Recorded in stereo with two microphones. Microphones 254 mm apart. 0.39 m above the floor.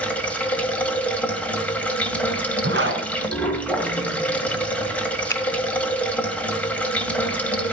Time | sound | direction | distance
0.0 | running water | 5° left (ahead or behind) | 2 m
2.6 | a zipper | 50° right (ahead or behind) | 2 m
5.3 | a finger snap | 10° left (ahead or behind) | 0.9 m